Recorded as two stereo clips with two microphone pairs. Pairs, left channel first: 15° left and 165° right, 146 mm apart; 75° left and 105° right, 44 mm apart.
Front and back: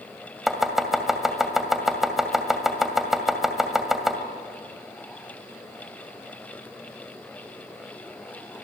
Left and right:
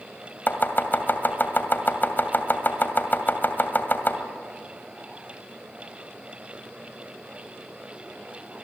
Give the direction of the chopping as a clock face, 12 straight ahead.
8 o'clock.